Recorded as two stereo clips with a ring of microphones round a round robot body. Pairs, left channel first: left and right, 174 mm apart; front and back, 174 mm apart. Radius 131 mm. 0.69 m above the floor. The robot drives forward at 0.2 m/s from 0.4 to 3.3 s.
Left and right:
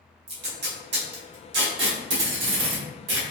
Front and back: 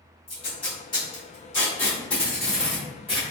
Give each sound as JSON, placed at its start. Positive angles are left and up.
{"t": 0.3, "sound": "tape being pulled", "azimuth_deg": -65, "distance_m": 1.1}